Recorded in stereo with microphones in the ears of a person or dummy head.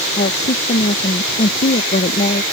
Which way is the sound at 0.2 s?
35° left (ahead or behind).